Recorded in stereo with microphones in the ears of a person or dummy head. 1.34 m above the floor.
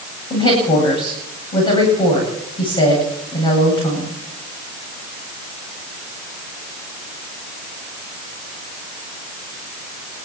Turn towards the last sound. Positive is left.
turn(degrees=25)  # may be behind; listen again after turning